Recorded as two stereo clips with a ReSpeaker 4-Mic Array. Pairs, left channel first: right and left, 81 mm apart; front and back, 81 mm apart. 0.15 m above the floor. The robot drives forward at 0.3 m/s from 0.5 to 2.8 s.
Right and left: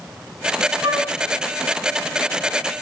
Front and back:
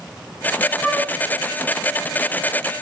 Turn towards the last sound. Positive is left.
turn(degrees=85)